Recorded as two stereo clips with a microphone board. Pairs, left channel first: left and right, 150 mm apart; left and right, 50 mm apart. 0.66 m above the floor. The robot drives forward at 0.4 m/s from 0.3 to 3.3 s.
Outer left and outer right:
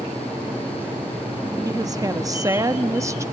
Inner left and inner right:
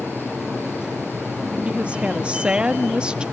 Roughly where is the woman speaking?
Right.